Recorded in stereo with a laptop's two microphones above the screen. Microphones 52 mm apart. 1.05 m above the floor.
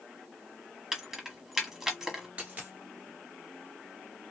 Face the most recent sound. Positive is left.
turn(degrees=-30)  # may be behind; listen again after turning